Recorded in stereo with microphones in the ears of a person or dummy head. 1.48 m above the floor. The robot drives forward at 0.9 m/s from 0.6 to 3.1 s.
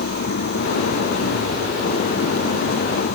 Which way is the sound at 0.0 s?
45° left (ahead or behind).